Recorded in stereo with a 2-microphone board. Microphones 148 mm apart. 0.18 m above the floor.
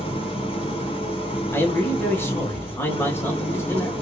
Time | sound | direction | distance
0.0 | an engine running | 35° left (ahead or behind) | 2.5 m
1.5 | a man speaking | 15° left (ahead or behind) | 1.4 m